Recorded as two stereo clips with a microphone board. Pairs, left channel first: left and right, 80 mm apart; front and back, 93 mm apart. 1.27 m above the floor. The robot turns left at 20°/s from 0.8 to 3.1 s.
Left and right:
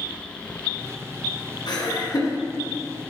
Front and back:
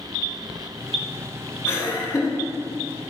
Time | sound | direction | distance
1.7 | laughter | 60° left | 1.8 m